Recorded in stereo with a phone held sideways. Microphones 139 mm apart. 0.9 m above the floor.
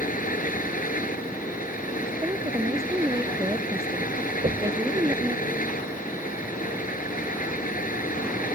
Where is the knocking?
55° right (ahead or behind).